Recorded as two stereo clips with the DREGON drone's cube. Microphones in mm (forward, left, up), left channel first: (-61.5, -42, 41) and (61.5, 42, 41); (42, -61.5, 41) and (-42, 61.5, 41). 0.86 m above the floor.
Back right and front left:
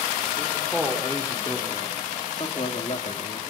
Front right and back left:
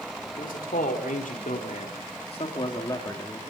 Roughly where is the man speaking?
Ahead right.